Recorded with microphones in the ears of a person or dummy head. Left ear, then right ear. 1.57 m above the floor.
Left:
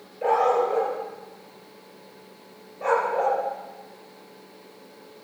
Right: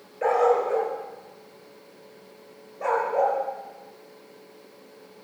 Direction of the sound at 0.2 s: 45° right (ahead or behind).